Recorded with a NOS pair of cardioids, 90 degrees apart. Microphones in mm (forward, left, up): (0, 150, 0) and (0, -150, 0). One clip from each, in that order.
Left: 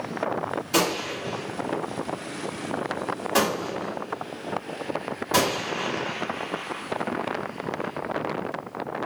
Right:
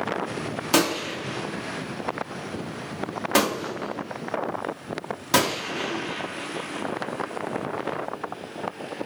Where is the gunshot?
55° right, 1.0 m.